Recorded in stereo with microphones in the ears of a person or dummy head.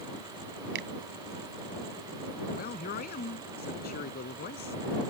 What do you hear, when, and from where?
0.8 s a finger snap: 60° right (ahead or behind)
2.5 s a man speaking: 50° left (ahead or behind)